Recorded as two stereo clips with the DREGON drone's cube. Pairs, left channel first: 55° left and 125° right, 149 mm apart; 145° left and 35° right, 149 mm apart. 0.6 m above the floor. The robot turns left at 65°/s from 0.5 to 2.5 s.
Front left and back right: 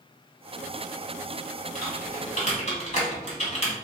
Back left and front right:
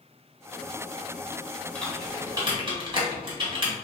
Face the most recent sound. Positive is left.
turn(degrees=20)